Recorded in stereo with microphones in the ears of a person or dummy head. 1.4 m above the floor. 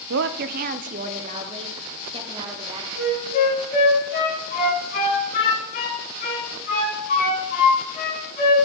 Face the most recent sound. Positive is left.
turn(degrees=50)  # may be behind; listen again after turning